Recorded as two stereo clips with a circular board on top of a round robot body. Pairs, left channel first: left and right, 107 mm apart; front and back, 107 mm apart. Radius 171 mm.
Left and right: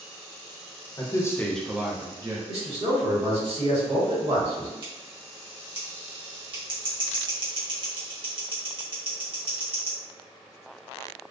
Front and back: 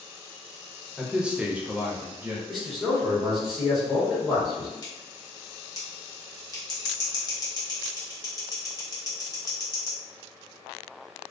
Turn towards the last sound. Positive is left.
turn(degrees=-50)